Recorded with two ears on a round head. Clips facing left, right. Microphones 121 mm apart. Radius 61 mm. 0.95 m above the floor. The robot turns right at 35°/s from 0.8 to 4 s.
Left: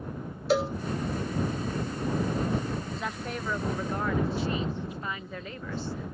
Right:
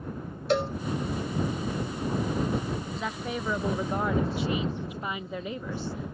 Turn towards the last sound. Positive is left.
turn(degrees=-15)  # may be behind; listen again after turning